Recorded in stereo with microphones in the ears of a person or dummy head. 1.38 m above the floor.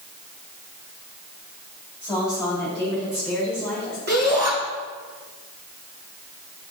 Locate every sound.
2.0 s a woman speaking: centre (ahead or behind), 4 m; by 4.0 s 5° left (ahead or behind), 5.5 m
4.1 s a shout: 50° right (ahead or behind), 3 m